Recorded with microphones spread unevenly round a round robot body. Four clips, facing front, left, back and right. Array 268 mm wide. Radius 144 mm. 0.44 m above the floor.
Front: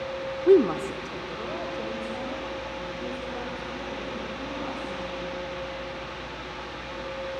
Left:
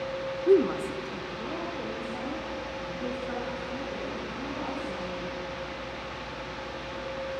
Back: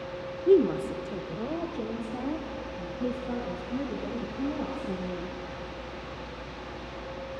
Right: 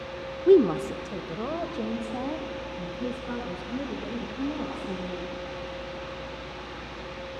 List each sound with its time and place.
0.5 s a woman speaking: 30° right, 0.8 m; by 5.3 s 135° right, 7 m